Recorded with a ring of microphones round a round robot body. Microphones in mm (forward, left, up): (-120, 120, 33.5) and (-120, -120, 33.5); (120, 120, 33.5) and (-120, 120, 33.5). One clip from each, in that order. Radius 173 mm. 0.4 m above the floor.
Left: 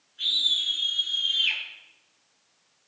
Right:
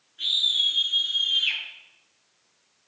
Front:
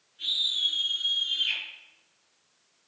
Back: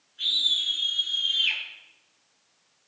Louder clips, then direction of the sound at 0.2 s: Right 1 dB, back 3 dB; 170° left.